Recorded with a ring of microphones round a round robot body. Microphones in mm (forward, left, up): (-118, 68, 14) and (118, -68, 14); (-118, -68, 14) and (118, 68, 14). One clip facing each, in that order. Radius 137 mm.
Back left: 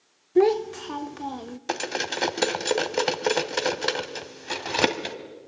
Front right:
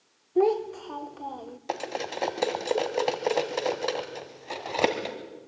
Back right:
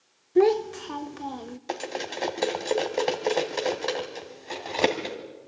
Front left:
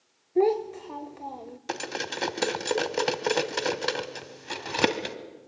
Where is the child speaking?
170° left, 0.7 m.